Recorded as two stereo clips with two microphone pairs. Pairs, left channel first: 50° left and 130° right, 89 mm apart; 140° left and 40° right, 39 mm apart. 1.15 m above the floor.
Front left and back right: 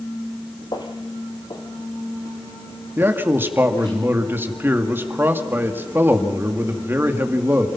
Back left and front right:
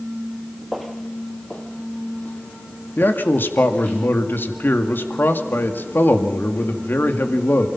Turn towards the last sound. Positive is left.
turn(degrees=165)